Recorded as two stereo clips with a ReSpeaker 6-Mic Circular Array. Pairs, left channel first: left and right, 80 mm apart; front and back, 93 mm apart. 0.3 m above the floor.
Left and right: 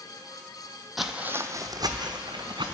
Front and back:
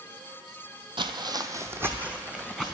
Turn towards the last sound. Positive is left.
turn(degrees=-100)